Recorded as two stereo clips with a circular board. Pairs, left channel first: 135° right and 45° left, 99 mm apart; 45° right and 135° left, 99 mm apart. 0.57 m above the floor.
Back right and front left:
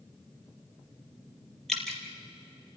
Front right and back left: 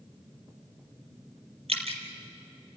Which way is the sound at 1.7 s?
135° left.